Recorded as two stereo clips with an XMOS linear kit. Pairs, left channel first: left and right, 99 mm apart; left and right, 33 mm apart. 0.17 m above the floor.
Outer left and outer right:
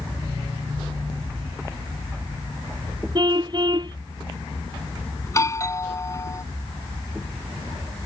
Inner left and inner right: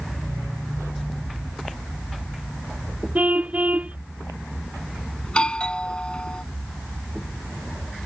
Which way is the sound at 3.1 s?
50° right (ahead or behind).